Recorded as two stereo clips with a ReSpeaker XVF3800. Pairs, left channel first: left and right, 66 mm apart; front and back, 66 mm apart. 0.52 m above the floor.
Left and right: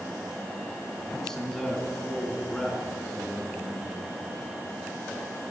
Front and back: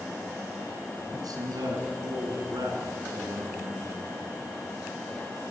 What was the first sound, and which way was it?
A man speaking, 170° left.